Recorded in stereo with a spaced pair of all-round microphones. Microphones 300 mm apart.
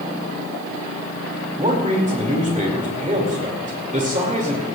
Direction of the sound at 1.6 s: 25° right (ahead or behind).